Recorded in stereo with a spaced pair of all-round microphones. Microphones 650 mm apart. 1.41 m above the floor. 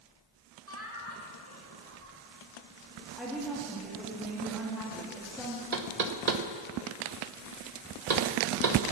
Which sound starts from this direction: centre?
A woman speaking, at 3.2 s.